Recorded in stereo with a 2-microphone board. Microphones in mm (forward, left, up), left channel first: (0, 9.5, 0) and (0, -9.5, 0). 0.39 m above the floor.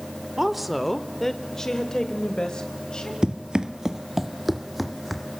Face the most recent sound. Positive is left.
turn(degrees=5)  # may be behind; listen again after turning